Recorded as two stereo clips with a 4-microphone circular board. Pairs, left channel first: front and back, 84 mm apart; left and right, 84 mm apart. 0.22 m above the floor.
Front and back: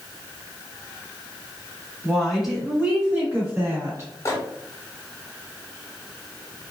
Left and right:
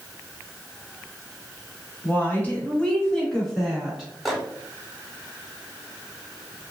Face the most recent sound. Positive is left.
turn(degrees=0)